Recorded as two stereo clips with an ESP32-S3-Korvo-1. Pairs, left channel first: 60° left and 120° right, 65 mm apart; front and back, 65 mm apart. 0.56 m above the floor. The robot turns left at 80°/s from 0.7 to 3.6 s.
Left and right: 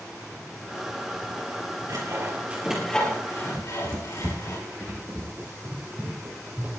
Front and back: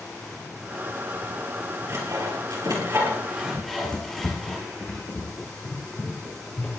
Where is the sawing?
135° right, 4.5 m; by 4.6 s 85° left, 4.5 m.